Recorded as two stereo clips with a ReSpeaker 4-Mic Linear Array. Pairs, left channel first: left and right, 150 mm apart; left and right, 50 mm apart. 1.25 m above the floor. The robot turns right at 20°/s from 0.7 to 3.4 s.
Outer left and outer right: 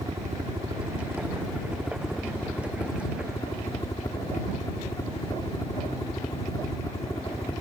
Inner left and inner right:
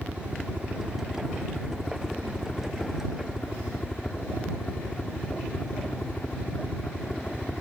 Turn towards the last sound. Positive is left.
turn(degrees=25)